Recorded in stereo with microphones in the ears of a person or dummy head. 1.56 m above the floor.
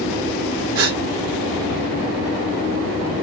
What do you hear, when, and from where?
0.8 s a gasp: 65° right (ahead or behind), 0.6 m